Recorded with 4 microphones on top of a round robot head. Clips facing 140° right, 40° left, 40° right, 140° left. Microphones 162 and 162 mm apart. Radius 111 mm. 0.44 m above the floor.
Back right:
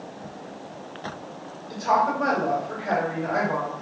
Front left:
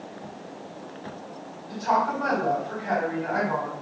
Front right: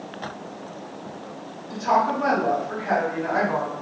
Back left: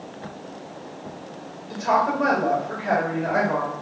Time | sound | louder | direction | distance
1.7 | a woman speaking | back right 2 dB, even | 175° right | 1.7 m